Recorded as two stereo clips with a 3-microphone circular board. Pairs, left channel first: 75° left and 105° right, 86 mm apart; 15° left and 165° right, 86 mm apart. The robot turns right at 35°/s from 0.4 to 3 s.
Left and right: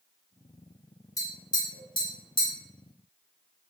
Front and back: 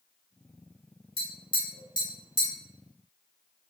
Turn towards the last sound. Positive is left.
turn(degrees=85)